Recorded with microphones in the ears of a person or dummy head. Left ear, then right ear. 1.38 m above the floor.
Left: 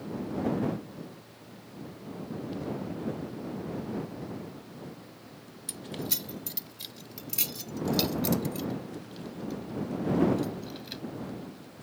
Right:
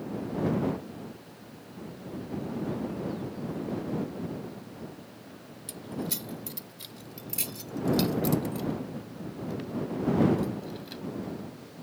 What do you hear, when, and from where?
5.7 s keys jangling: 10° left (ahead or behind); by 11.0 s 15° left (ahead or behind)